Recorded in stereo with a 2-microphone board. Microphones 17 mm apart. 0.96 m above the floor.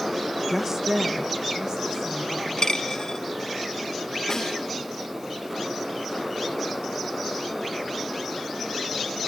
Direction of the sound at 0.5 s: Centre (ahead or behind).